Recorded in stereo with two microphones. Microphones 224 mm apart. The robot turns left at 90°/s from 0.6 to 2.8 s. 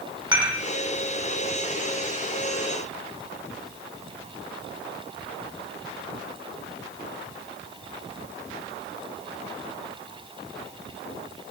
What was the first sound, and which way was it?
Dishes clattering, 20° right (ahead or behind).